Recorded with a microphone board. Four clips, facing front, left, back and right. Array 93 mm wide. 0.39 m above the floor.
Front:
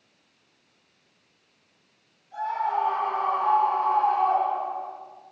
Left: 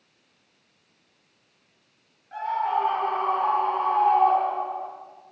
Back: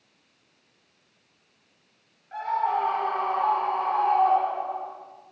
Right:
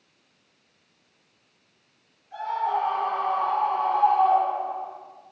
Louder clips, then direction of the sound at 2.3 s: Left 1 dB, back 1 dB; 140° left.